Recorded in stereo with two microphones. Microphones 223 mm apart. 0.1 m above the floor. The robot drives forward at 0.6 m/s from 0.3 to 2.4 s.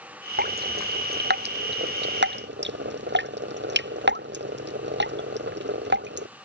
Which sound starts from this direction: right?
Dripping, at 0.4 s.